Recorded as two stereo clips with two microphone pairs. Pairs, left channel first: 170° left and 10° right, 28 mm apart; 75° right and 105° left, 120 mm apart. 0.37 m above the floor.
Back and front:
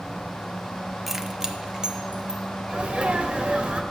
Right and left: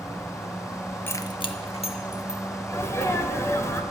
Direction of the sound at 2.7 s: 20° right.